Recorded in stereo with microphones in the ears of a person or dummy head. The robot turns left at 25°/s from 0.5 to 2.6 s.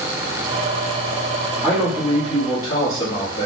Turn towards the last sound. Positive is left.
turn(degrees=15)  # may be behind; listen again after turning